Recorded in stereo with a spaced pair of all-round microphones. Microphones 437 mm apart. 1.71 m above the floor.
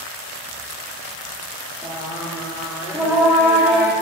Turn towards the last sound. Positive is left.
turn(degrees=-5)  # may be behind; listen again after turning